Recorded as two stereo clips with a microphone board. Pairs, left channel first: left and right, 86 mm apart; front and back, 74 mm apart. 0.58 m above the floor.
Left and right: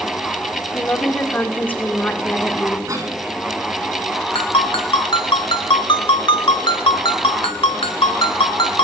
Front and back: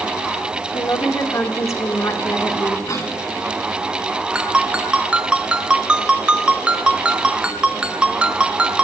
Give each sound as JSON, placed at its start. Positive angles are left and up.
{"t": 0.7, "sound": "a woman speaking", "azimuth_deg": 25, "distance_m": 1.9}
{"t": 2.9, "sound": "a cough", "azimuth_deg": -40, "distance_m": 5.5}
{"t": 4.3, "sound": "a ringtone", "azimuth_deg": 105, "distance_m": 1.4}